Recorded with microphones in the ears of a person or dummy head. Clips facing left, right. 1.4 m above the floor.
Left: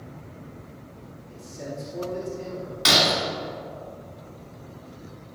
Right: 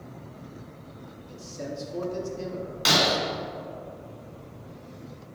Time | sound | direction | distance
1.3 | a man speaking | 60° right (ahead or behind) | 2.5 m
2.9 | breaking glass | centre (ahead or behind) | 1.8 m